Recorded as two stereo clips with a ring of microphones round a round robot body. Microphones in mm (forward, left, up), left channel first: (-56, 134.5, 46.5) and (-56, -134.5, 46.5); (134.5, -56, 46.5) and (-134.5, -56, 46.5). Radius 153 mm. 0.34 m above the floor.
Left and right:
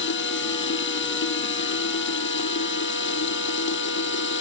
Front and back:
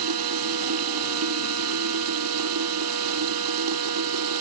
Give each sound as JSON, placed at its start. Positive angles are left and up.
{"t": 0.0, "sound": "running water", "azimuth_deg": 135}